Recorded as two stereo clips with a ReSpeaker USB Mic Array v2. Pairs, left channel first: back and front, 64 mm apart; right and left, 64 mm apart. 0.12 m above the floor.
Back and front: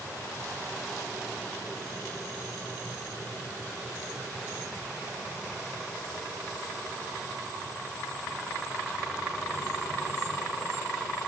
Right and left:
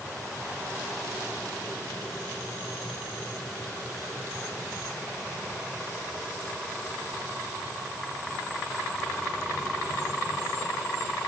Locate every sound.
Only background noise.